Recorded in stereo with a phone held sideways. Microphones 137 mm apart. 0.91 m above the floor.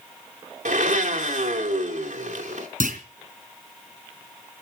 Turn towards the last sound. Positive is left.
turn(degrees=-80)